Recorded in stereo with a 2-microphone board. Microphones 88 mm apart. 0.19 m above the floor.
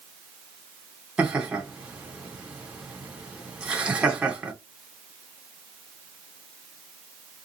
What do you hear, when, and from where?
1.2 s laughter: 15° right (ahead or behind), 1.4 m